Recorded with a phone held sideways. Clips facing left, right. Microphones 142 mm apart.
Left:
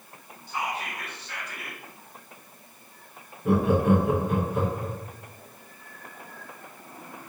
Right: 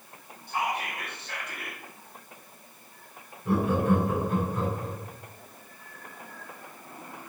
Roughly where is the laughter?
Left.